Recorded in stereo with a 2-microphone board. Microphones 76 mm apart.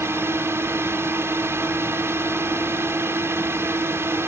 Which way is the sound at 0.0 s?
35° right (ahead or behind).